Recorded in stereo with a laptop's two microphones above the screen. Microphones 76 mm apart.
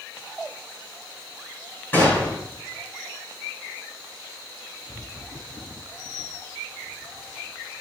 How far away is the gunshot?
About 6 m.